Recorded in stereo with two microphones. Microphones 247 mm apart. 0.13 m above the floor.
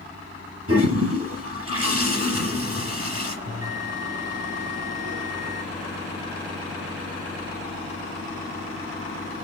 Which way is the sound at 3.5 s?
85° right.